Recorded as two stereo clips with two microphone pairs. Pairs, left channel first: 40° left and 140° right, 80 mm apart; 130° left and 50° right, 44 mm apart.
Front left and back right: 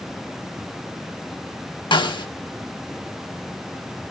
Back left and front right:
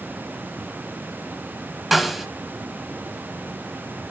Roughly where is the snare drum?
Ahead left.